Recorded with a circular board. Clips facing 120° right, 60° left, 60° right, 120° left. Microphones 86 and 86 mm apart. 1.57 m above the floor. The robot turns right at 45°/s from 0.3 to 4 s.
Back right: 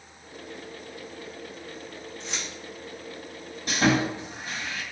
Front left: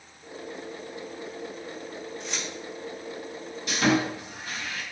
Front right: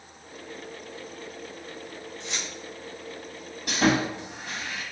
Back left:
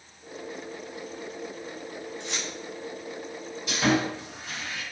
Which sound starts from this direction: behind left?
Keys jangling, at 2.2 s.